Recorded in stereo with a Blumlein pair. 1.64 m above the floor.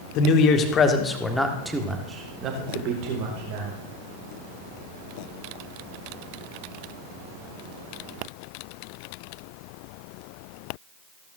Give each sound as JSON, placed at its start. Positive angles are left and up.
{"t": 0.1, "sound": "a man speaking", "azimuth_deg": 40, "distance_m": 1.8}